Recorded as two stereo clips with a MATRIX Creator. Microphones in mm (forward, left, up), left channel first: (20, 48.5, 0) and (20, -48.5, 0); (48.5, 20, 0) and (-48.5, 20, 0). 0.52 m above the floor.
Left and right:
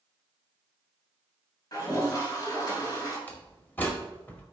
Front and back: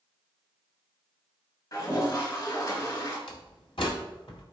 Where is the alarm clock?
I don't hear an alarm clock.